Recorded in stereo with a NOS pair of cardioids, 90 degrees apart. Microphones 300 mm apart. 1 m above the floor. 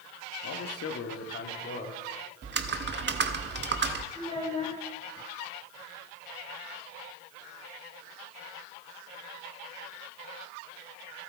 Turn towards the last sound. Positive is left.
turn(degrees=20)